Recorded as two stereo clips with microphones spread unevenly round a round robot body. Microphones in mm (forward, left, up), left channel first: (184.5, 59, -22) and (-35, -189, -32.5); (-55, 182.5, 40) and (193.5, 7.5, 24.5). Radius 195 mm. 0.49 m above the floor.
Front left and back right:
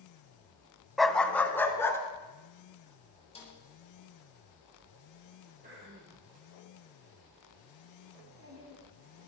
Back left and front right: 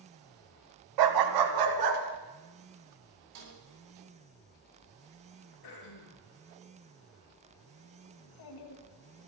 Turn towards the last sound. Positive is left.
turn(degrees=170)